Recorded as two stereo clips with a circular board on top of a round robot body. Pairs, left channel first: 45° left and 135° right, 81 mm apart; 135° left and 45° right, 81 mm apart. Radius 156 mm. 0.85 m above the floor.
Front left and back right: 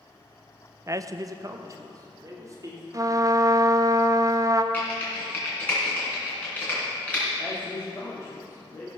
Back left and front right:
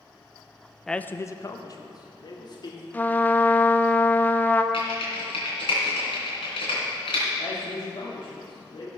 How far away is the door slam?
No door slam in this recording.